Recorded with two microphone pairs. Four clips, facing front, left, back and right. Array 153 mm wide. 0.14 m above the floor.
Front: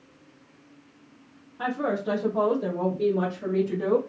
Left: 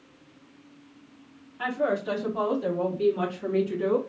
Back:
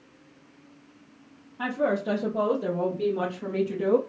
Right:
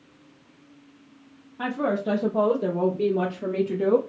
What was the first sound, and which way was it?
A woman speaking, 95° right.